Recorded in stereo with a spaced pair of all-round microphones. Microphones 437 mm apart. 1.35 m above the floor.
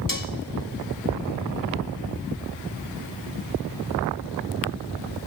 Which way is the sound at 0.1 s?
45° left (ahead or behind).